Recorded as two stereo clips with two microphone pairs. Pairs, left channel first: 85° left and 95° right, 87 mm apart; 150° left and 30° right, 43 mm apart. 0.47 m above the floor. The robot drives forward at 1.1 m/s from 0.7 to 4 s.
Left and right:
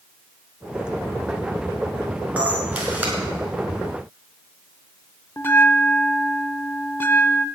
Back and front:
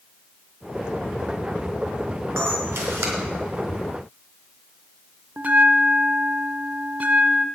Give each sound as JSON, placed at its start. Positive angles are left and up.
{"t": 2.4, "sound": "a camera shutter", "azimuth_deg": -20, "distance_m": 5.0}
{"t": 5.4, "sound": "a bell", "azimuth_deg": 20, "distance_m": 0.6}